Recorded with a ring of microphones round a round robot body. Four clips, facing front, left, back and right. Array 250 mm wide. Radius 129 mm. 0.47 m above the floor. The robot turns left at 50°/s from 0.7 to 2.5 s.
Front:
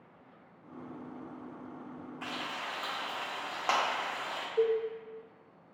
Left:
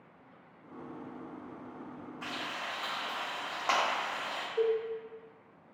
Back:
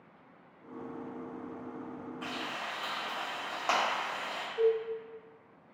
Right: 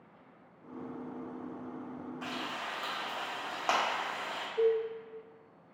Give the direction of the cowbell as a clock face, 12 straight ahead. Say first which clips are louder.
Right 1 dB, back 1 dB; 11 o'clock.